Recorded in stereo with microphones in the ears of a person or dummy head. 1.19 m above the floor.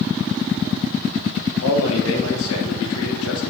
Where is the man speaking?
70° left (ahead or behind), 0.7 m.